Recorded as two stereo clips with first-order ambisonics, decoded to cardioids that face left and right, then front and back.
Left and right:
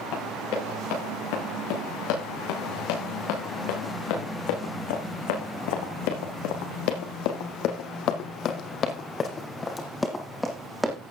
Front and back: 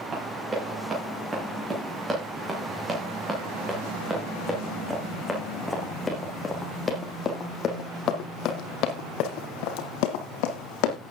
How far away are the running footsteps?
About 9 m.